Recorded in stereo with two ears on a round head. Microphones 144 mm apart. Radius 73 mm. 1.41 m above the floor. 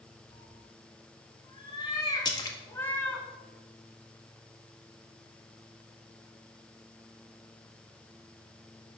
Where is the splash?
25° left (ahead or behind), 1.6 m.